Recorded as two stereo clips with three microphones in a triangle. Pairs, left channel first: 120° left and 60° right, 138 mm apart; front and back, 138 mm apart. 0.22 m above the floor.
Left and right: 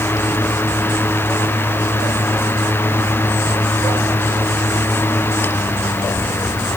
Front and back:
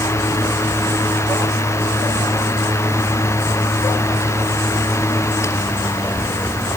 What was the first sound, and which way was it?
Only background noise.